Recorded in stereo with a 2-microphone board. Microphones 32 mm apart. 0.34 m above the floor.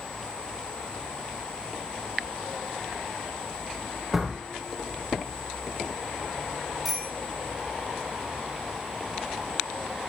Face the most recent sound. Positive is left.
turn(degrees=5)  # may be behind; listen again after turning